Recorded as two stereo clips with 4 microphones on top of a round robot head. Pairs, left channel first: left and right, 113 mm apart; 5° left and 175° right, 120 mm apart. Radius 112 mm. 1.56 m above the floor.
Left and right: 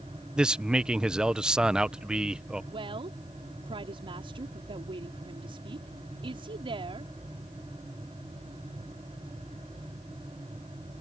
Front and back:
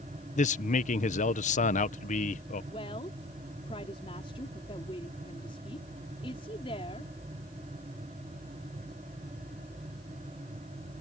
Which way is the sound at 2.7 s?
50° right.